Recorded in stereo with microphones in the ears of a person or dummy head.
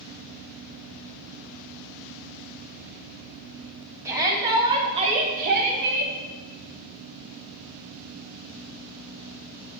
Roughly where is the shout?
Centre.